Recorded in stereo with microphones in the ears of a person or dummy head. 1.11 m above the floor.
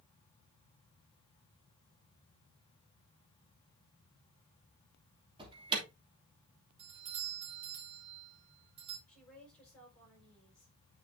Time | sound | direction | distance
5.4 | an alarm | 25° right (ahead or behind) | 2.5 m
6.8 | a doorbell | 30° right (ahead or behind) | 3.5 m
9.1 | a woman speaking | 10° left (ahead or behind) | 5 m